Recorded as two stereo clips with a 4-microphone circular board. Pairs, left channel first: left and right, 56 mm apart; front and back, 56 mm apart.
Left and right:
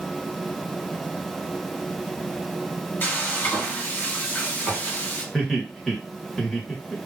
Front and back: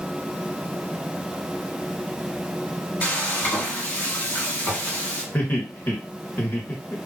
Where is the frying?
50° left, 2 m.